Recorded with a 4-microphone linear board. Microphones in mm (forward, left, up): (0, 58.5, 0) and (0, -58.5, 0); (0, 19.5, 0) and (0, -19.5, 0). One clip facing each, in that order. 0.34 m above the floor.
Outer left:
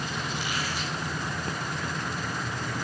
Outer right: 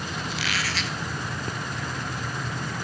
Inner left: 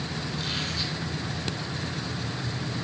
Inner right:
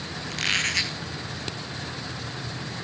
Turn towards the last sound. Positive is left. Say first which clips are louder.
# outer right 1 dB, inner right 10 dB
turn(degrees=-80)